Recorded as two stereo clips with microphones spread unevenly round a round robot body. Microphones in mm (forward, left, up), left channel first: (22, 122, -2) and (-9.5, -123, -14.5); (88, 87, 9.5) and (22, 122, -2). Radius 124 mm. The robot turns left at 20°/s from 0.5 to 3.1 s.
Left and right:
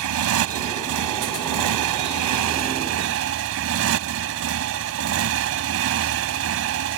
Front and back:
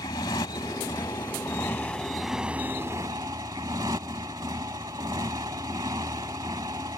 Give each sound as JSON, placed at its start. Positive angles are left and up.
{"t": 0.0, "sound": "a motorcycle", "azimuth_deg": -80}